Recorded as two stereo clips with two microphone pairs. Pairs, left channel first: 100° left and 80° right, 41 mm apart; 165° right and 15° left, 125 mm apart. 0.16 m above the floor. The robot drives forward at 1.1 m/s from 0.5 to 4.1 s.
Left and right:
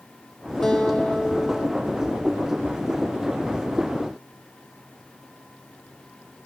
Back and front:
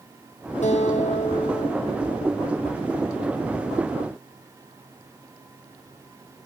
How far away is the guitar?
About 4.5 m.